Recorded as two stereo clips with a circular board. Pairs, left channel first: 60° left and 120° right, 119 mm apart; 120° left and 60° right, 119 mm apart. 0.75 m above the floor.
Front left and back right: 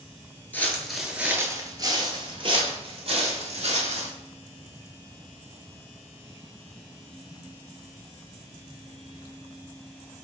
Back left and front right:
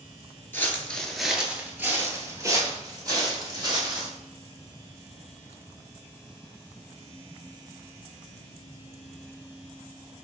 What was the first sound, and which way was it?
Footsteps, 95° left.